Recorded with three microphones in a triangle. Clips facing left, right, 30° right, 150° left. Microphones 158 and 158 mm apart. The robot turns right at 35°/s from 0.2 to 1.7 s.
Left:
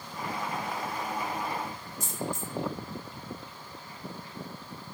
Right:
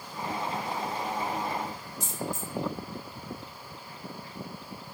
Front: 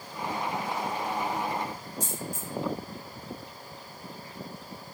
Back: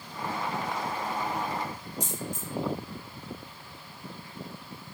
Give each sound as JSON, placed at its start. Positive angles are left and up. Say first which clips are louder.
{"t": 2.0, "sound": "a dropped coin", "louder": "even, back 1 dB", "azimuth_deg": 130, "distance_m": 1.9}